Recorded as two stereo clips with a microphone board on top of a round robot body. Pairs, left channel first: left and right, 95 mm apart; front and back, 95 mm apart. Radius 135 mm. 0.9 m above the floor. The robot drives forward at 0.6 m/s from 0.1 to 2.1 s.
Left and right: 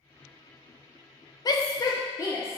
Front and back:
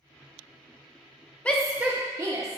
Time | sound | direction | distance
1.4 | a shout | 70° left | 0.5 m